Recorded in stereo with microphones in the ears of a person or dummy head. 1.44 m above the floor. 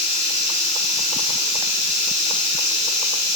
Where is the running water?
35° left (ahead or behind), 1.0 m.